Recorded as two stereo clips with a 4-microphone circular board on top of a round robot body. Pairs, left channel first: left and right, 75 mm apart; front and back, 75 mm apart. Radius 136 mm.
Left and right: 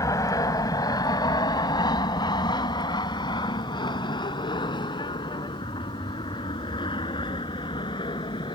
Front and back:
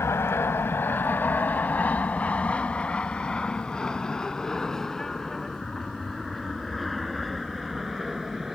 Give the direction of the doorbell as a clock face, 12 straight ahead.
I don't hear a doorbell.